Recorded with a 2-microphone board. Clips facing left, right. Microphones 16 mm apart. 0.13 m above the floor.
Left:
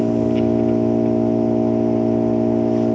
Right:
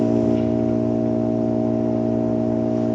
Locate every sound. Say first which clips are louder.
0.0 s an engine running: left 1 dB; 45° left (ahead or behind), 0.9 m